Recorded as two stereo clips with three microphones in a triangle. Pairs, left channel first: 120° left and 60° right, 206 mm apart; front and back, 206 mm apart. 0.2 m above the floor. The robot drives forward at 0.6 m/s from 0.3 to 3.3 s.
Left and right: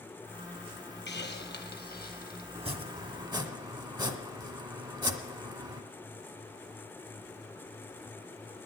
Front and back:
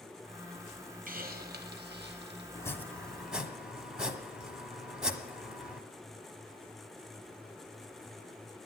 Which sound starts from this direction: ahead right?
Chopping, at 2.5 s.